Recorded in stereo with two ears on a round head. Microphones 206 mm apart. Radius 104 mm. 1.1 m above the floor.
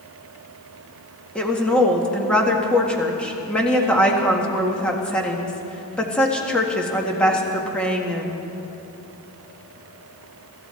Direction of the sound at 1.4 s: 5° left (ahead or behind).